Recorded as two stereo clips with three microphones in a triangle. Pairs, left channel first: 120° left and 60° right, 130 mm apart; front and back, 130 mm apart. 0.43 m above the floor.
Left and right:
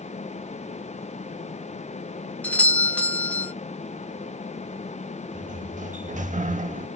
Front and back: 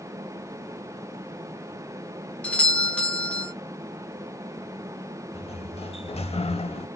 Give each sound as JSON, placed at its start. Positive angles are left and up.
{"t": 2.4, "sound": "a doorbell", "azimuth_deg": 60, "distance_m": 1.4}
{"t": 5.3, "sound": "a sliding door", "azimuth_deg": -40, "distance_m": 0.7}